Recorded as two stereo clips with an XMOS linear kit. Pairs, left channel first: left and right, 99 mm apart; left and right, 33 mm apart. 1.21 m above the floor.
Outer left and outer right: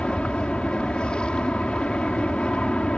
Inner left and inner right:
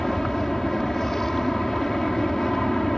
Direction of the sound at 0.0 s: 10° left (ahead or behind).